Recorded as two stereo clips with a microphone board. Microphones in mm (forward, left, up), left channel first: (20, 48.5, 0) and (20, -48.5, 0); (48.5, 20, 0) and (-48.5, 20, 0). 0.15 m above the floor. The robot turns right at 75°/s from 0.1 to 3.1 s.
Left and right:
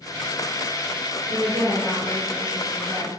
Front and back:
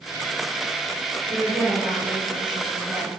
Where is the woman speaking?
100° left, 2.0 m; by 3.1 s 125° right, 2.0 m.